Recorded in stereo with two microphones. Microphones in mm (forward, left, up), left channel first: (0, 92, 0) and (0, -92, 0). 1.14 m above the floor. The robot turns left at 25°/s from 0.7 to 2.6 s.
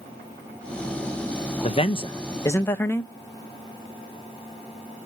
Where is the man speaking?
35° left (ahead or behind), 0.8 m; by 3.1 s 15° left (ahead or behind), 0.8 m.